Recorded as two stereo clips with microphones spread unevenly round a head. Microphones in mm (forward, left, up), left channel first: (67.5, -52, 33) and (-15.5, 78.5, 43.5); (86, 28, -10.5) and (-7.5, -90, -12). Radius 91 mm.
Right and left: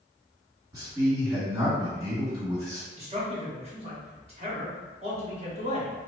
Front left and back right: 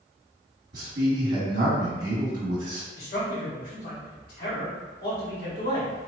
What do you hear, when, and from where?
0.7 s a man speaking: 165° right, 1.7 m
3.0 s a man speaking: 75° left, 1.5 m